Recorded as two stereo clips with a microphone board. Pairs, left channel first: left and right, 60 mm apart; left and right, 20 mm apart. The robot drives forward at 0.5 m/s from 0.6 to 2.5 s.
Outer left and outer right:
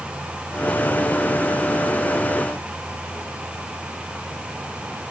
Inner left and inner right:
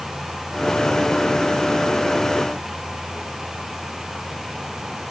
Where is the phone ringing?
I don't hear a phone ringing.